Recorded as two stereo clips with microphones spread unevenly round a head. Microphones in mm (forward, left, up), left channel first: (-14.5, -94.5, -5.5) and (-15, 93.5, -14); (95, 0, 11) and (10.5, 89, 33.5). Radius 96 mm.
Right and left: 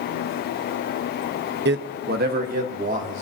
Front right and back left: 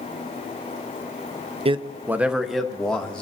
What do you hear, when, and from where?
1.6 s a man speaking: 90° left, 0.7 m; by 3.2 s 35° left, 2.5 m